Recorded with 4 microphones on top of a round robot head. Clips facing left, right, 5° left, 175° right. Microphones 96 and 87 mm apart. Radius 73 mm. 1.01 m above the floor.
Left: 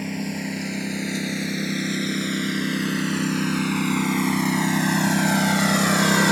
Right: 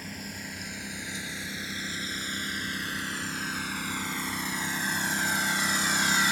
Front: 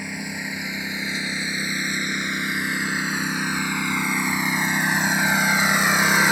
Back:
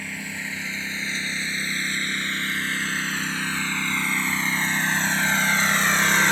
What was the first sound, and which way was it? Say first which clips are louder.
A lawn mower: left 12 dB, front 3 dB; 75° left.